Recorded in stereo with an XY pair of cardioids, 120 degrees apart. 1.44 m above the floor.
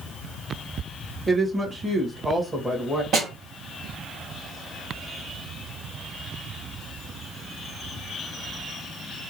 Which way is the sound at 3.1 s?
50° right.